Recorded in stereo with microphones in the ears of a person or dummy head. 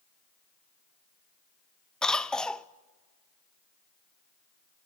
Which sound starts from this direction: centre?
A cough, at 2.0 s.